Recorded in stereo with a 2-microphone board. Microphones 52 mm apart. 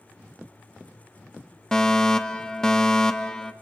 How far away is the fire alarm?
About 1.1 m.